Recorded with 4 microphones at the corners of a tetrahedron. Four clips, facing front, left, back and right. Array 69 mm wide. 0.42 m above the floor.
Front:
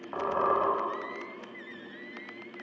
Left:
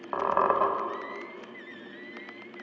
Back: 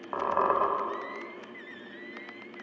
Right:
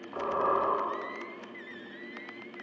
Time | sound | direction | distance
0.1 | a squeak | 110° left | 0.7 m